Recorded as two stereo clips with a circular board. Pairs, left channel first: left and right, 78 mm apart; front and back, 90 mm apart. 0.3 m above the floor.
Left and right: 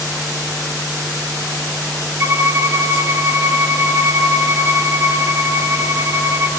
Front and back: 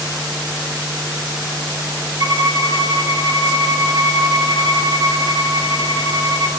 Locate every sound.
2.2 s a violin: 140° right, 0.8 m